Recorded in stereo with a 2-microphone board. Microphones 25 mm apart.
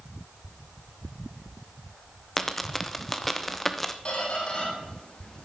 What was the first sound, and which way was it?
A dropped coin, 10° left (ahead or behind).